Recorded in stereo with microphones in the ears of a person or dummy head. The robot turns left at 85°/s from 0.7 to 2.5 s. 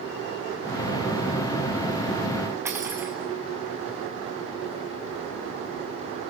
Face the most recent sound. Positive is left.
turn(degrees=-20)  # may be behind; listen again after turning